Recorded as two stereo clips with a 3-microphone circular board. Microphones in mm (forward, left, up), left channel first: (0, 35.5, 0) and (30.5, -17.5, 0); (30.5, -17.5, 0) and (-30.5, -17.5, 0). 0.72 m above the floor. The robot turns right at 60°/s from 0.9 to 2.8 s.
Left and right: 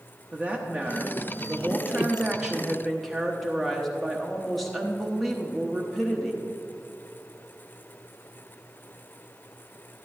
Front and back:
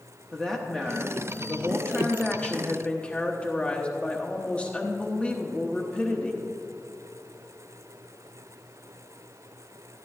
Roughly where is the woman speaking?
Right.